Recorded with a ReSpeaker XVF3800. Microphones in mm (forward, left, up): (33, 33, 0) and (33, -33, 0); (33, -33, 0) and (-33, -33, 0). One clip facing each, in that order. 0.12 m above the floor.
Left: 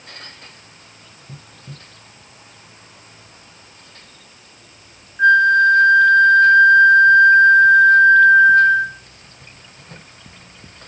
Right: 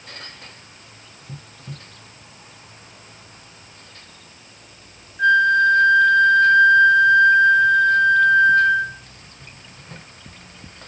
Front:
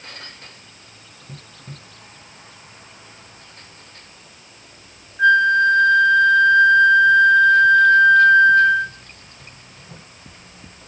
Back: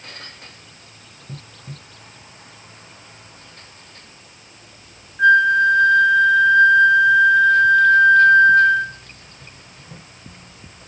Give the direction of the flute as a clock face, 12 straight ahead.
8 o'clock.